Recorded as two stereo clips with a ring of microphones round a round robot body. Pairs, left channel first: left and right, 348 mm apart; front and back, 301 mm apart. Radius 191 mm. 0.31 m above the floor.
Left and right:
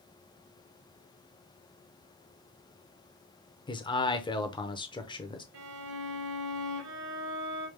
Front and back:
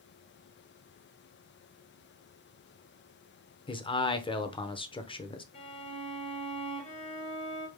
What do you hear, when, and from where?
3.7 s a man speaking: 40° left, 0.8 m
5.5 s a violin: 70° right, 3 m